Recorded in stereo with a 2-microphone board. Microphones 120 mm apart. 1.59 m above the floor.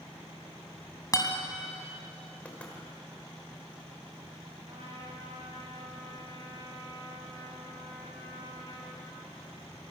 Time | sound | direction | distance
1.1 | a guitar | 30° left (ahead or behind) | 3 m
2.5 | knocking | 10° left (ahead or behind) | 4.5 m
4.7 | a trumpet | 55° right (ahead or behind) | 6.5 m